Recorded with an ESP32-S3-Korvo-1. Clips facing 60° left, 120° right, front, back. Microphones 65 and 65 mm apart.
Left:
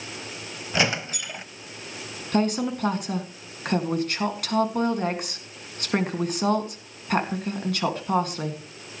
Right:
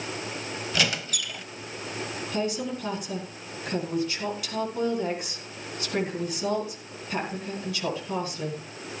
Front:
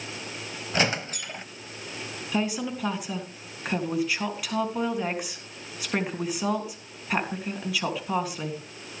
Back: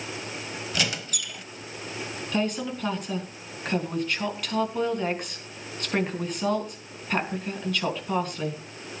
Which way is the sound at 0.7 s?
15° left.